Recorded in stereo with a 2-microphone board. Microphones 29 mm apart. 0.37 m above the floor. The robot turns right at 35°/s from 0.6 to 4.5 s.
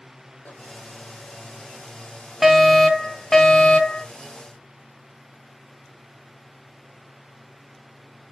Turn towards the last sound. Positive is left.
turn(degrees=65)